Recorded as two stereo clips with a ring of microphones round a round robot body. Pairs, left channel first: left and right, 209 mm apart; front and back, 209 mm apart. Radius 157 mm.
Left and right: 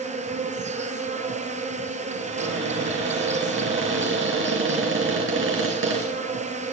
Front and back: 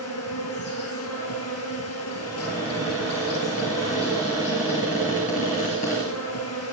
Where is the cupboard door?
65° right, 4.5 m.